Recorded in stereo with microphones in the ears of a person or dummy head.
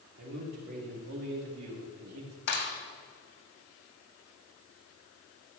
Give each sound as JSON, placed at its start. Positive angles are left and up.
{"t": 0.2, "sound": "a man speaking", "side_deg": -55, "distance_m": 2.5}
{"t": 2.5, "sound": "a clap", "side_deg": 55, "distance_m": 1.9}